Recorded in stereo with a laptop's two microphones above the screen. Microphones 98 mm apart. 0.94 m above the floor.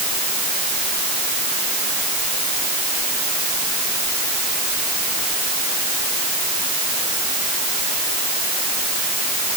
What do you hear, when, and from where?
Only background noise.